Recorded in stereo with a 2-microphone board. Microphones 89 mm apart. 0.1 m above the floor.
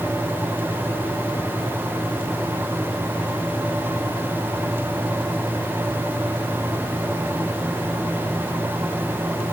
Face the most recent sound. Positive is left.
No sound to turn to.